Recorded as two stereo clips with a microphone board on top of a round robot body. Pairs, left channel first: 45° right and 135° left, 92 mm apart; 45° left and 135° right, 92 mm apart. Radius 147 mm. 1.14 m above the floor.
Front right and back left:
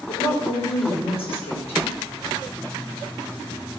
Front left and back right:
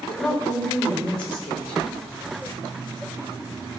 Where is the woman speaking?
35° right, 4 m.